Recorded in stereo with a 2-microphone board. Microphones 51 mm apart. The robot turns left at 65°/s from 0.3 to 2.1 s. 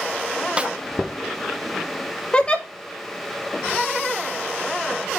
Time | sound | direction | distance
0.6 | a snare drum | 20° right (ahead or behind) | 0.6 m
2.3 | a giggle | 20° left (ahead or behind) | 1.2 m